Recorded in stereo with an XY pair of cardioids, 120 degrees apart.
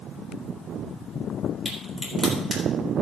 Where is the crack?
15° right, 3.5 m.